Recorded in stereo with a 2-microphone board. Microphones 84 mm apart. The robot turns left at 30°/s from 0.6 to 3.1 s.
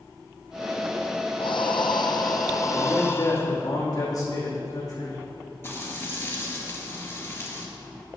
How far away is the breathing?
About 0.9 m.